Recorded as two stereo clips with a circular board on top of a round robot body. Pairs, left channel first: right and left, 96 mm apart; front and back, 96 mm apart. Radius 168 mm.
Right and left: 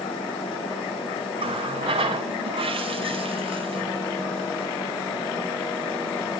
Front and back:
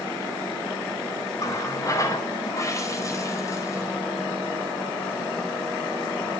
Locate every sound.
1.4 s a running tap: 60° left, 0.8 m